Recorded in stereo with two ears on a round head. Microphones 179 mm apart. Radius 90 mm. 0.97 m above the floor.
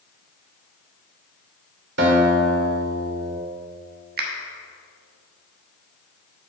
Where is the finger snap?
55° right (ahead or behind), 1.4 m.